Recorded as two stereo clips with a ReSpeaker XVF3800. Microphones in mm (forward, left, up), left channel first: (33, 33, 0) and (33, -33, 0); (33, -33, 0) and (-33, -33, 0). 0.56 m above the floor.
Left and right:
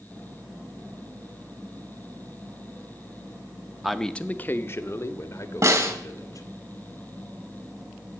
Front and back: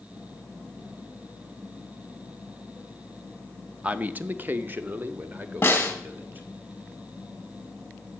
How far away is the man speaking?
About 0.6 m.